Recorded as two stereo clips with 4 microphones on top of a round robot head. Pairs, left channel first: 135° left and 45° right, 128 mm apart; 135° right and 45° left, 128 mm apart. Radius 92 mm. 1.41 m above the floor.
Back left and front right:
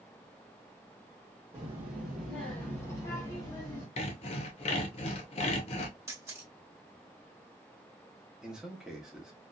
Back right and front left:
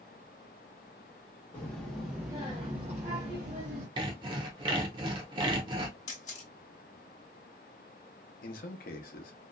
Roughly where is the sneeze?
I don't hear a sneeze.